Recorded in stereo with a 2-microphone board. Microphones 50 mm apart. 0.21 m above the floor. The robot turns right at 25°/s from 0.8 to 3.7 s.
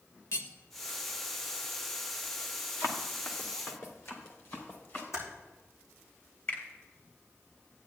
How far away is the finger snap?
About 3.5 m.